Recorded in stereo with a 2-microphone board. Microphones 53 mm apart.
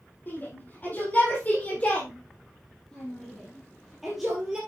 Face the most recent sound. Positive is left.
turn(degrees=-15)  # may be behind; listen again after turning